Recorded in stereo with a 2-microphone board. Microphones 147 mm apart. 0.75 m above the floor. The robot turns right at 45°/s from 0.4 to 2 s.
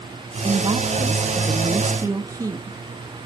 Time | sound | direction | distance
0.4 | a woman speaking | 115° right | 0.5 m